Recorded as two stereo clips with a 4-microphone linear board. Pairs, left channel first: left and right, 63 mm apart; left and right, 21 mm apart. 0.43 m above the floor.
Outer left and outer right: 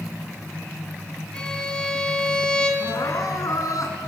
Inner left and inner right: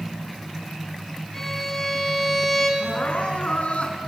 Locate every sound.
1.3 s a violin: 15° left (ahead or behind), 3 m
2.8 s crying: 70° left (ahead or behind), 3 m